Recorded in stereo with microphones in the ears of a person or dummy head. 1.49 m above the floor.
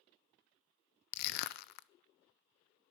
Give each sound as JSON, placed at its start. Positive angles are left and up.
{"t": 1.1, "sound": "crushing", "side_deg": 60, "distance_m": 0.5}